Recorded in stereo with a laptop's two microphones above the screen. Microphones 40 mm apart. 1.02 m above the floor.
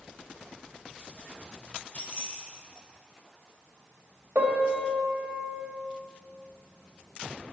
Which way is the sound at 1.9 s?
35° left (ahead or behind).